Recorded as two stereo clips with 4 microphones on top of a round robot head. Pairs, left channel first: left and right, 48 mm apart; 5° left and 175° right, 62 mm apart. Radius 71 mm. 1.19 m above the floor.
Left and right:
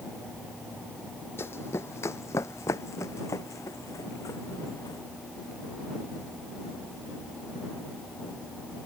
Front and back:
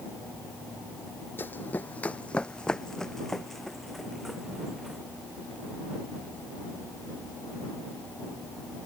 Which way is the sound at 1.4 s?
60° left.